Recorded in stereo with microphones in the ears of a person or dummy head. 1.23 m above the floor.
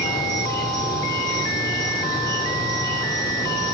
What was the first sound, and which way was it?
An insect, 20° left (ahead or behind).